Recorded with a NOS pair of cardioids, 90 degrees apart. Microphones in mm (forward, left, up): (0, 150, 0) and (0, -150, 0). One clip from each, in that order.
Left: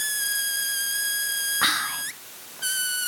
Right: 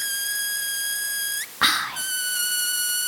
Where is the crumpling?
No crumpling in this recording.